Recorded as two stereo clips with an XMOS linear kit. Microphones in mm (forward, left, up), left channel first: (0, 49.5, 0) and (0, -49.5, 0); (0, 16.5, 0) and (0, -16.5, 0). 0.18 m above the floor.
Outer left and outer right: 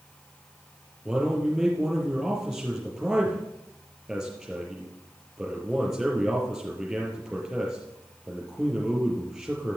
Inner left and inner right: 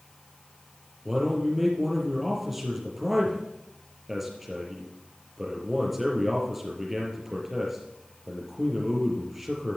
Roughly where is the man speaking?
Centre.